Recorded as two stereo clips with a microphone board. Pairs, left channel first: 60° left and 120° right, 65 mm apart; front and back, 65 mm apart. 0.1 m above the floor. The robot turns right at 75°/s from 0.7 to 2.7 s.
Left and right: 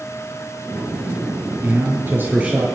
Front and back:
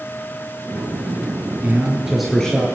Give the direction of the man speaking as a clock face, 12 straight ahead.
4 o'clock.